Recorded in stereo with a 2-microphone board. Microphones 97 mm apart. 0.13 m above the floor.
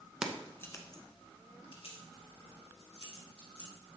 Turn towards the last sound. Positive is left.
turn(degrees=75)  # may be behind; listen again after turning